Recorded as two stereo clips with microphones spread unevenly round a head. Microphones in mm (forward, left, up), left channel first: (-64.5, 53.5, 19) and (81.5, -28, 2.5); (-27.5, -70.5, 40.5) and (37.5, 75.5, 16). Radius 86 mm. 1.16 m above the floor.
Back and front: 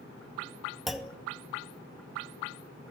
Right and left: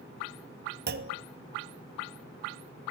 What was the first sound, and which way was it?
A clunk, 60° left.